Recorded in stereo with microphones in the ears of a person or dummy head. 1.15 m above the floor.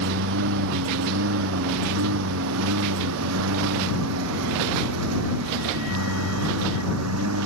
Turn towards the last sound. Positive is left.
turn(degrees=-85)